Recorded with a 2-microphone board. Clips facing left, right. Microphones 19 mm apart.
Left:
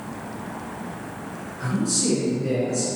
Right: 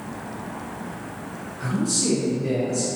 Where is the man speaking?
5° left (ahead or behind), 1.5 m.